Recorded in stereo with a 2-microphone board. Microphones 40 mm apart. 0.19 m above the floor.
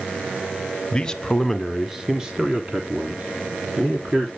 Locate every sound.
0.9 s a man speaking: 20° left (ahead or behind), 1.1 m; by 4.3 s 35° right (ahead or behind), 3 m